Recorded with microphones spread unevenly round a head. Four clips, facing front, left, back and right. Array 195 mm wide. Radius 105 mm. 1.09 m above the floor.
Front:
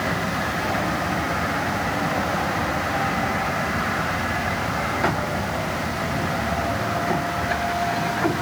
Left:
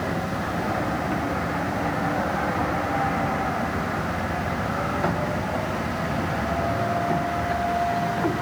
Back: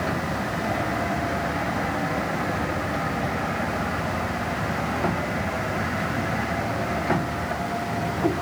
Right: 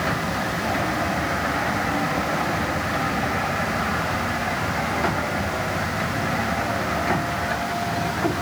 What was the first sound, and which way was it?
Only background noise.